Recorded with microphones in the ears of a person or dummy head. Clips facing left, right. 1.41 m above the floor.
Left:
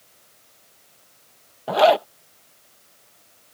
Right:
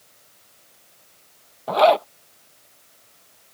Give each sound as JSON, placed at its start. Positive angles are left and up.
{"t": 1.7, "sound": "a zipper", "side_deg": 10}